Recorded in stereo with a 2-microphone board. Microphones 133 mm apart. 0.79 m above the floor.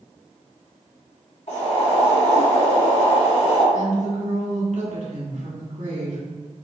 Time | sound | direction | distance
1.5 | boiling | 60° left (ahead or behind) | 2.0 m
3.7 | a woman speaking | 65° right (ahead or behind) | 1.5 m